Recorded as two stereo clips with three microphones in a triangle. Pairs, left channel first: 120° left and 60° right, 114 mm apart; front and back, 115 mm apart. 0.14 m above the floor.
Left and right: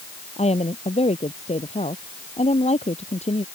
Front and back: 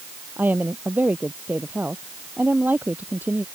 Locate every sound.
0.4 s a woman speaking: 105° left